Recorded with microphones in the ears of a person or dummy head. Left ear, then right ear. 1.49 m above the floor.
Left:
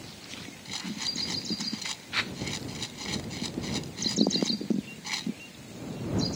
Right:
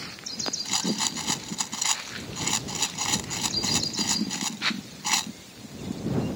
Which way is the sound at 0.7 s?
45° right (ahead or behind).